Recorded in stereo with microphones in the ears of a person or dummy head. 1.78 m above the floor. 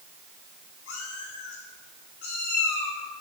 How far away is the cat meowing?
About 5.5 m.